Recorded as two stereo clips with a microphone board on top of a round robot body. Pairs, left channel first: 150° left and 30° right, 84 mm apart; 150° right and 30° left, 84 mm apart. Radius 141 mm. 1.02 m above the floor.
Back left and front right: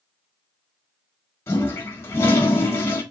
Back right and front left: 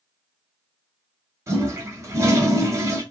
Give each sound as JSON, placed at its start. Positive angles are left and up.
{"t": 1.5, "sound": "a toilet flushing", "azimuth_deg": 90, "distance_m": 0.9}